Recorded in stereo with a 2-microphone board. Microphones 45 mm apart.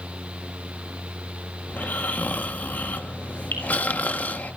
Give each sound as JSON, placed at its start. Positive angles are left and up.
{"t": 1.7, "sound": "snoring", "side_deg": 40, "distance_m": 1.3}
{"t": 3.5, "sound": "dripping", "side_deg": 50, "distance_m": 5.5}